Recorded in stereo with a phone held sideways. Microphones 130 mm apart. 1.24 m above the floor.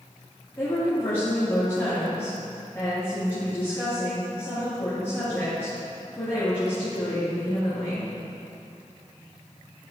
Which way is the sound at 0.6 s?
20° left (ahead or behind).